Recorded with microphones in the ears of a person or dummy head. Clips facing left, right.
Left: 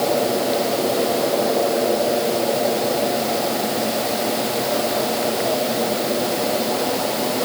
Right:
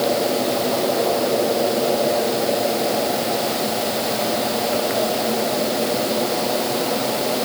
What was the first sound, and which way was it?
Only background noise.